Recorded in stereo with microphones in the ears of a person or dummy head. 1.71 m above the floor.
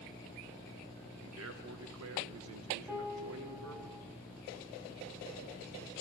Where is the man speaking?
70° right (ahead or behind), 1.5 m.